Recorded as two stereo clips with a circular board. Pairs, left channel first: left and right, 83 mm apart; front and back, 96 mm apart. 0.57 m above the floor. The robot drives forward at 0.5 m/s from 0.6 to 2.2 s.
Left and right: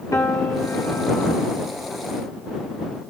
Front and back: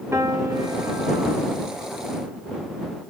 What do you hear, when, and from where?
0.1 s a piano: 125° left, 1.6 m; by 1.4 s 140° left, 1.8 m